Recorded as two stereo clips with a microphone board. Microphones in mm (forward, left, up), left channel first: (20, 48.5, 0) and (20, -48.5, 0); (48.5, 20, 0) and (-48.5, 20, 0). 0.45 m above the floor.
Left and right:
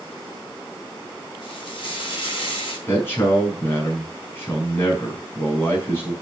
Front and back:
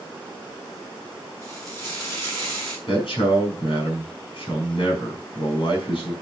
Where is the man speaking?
25° left, 4.5 m.